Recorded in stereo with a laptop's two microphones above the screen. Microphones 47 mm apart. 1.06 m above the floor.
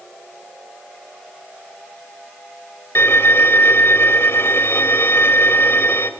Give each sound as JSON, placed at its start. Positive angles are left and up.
{"t": 3.0, "sound": "a violin", "side_deg": 60, "distance_m": 2.0}